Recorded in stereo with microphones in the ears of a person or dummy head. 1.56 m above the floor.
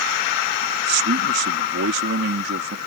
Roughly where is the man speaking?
Right.